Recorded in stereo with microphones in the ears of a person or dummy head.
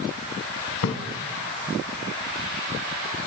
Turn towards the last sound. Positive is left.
turn(degrees=65)  # may be behind; listen again after turning